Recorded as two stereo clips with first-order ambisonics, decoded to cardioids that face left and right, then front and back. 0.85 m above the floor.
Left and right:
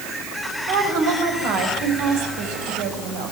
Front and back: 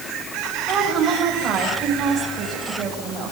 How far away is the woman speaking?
About 6 m.